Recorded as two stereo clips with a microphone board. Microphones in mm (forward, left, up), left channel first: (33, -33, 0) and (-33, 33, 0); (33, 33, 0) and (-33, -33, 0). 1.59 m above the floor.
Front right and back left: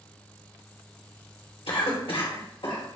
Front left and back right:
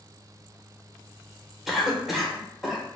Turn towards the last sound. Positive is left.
turn(degrees=-50)